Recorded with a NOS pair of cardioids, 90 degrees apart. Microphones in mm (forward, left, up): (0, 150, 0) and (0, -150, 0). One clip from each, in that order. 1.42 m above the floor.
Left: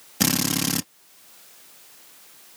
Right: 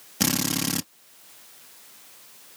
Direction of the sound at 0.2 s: 15° left.